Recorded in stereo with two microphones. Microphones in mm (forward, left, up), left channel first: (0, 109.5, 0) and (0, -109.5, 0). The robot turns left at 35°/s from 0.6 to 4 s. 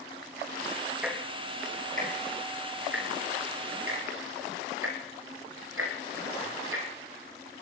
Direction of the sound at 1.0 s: 5° right (ahead or behind).